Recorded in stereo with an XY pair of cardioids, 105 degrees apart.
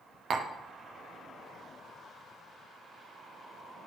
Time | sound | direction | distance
0.3 | tapping | 60° right | 1.3 m